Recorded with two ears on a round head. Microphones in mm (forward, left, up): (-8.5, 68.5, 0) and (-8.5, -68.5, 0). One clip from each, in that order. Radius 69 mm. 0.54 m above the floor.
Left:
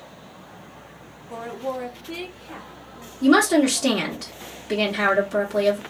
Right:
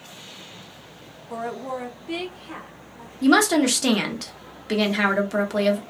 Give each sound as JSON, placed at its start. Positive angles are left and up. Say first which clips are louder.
{"t": 1.3, "sound": "a woman speaking", "louder": "even", "side_deg": -25, "distance_m": 0.8}
{"t": 3.2, "sound": "a woman speaking", "louder": "left 1 dB", "side_deg": -25, "distance_m": 0.9}